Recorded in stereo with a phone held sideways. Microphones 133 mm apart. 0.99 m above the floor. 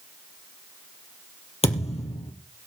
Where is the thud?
55° left (ahead or behind), 3.5 m.